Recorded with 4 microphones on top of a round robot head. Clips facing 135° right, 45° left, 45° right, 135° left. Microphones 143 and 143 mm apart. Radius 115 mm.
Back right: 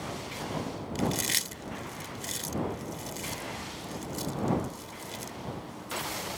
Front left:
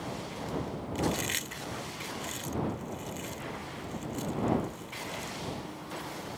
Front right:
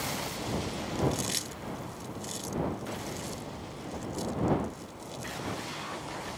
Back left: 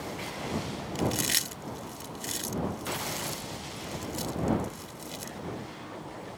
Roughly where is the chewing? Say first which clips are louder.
Even, even; behind.